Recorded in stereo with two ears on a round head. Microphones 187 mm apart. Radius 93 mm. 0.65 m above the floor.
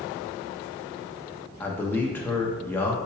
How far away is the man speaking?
About 0.6 m.